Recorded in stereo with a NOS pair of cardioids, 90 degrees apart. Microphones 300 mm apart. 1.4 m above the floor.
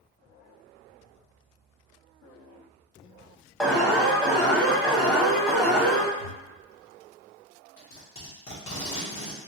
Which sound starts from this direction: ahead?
An alarm, at 3.6 s.